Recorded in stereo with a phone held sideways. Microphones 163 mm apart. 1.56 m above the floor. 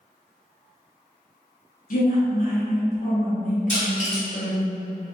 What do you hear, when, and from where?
1.9 s a woman speaking: 60° left (ahead or behind), 0.8 m
3.7 s crushing: 45° left (ahead or behind), 1.6 m